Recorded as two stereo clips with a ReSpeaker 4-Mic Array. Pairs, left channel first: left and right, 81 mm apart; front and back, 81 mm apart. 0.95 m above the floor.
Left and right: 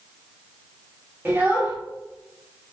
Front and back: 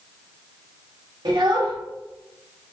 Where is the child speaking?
155° right, 1.4 m.